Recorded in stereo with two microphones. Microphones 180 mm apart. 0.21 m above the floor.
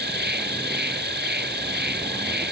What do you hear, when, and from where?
0.0 s an insect: 70° right (ahead or behind)